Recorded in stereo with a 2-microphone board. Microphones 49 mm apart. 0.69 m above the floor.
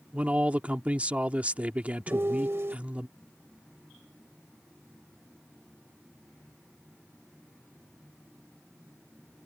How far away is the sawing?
No sawing in this recording.